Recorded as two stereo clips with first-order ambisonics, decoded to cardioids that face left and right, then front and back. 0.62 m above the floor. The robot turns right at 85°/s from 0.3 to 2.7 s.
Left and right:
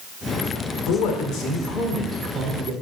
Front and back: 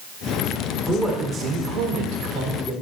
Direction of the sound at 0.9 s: 80° left.